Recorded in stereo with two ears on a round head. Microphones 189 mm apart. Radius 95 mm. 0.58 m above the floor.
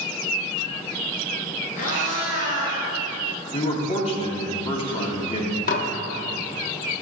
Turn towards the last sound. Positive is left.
turn(degrees=40)  # may be behind; listen again after turning